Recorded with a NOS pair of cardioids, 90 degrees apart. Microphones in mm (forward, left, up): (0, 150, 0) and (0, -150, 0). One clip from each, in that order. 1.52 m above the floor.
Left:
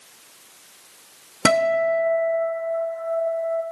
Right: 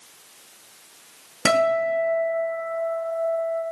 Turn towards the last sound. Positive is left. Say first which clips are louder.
# left 1 dB
turn(degrees=45)